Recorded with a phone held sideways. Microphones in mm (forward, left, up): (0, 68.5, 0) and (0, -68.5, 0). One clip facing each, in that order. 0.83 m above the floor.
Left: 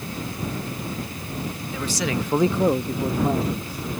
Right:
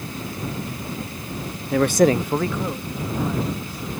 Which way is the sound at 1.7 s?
70° right (ahead or behind).